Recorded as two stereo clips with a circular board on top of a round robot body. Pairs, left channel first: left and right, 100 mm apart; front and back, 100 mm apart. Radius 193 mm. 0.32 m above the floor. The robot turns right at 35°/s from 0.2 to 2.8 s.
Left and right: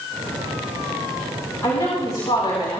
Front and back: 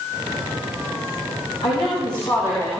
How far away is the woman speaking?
About 6 m.